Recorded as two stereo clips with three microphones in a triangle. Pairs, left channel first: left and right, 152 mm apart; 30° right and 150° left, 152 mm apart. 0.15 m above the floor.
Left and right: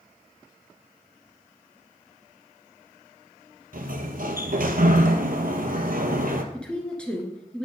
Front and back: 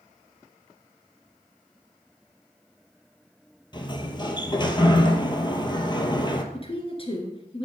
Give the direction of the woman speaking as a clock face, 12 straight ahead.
12 o'clock.